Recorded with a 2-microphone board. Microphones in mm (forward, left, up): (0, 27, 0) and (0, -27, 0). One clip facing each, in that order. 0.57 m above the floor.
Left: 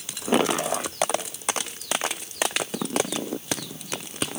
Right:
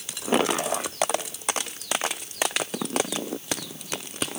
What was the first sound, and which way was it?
Only background noise.